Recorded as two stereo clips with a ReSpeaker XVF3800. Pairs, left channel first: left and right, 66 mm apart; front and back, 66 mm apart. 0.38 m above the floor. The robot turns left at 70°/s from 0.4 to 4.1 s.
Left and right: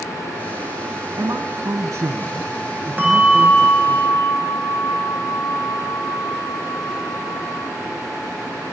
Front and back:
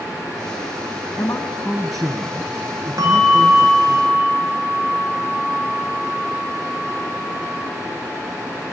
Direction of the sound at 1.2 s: 40° right.